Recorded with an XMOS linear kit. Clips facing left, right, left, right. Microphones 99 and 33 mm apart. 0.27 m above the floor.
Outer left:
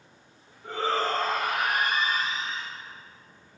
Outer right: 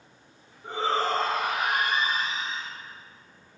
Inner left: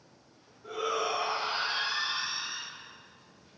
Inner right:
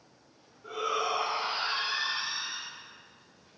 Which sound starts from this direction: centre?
A shout, at 0.6 s.